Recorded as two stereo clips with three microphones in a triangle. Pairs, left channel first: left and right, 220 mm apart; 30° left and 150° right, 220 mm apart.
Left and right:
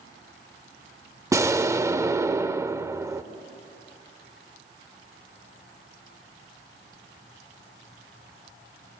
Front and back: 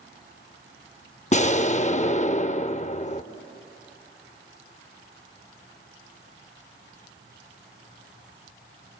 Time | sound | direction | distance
1.3 | an explosion | 20° right | 0.6 m